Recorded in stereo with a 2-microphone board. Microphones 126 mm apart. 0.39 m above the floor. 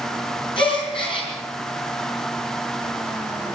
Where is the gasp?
45° left (ahead or behind), 5.5 m.